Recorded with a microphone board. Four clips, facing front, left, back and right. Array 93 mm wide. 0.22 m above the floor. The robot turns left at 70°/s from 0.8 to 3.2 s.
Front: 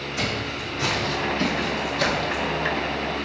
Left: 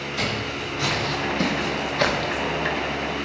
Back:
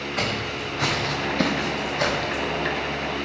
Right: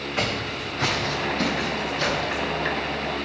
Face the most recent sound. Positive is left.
turn(degrees=10)